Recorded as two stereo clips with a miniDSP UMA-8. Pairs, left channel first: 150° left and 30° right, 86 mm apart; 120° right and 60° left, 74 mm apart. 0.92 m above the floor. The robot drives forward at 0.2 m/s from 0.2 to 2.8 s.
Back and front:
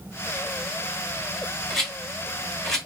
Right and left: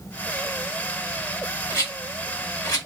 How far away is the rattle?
About 2 m.